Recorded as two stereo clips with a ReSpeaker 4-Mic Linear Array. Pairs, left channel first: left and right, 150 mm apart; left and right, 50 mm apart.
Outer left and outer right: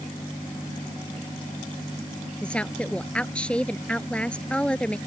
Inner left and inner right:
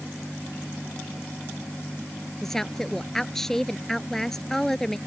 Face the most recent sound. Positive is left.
turn(degrees=10)  # may be behind; listen again after turning